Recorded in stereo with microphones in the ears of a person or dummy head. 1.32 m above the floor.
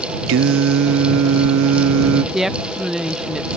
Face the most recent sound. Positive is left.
turn(degrees=0)  # may be behind; listen again after turning